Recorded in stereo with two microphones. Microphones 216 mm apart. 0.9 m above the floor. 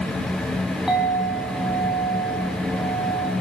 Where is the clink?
Centre (ahead or behind), 4 m.